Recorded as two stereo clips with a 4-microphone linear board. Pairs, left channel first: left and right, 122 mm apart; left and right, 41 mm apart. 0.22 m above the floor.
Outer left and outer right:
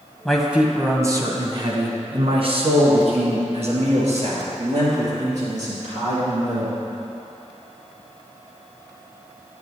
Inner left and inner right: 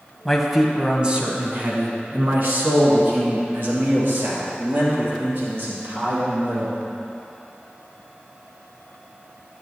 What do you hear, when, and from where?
0.2 s a man speaking: 5° left (ahead or behind), 1.0 m; by 6.8 s 70° right (ahead or behind), 5 m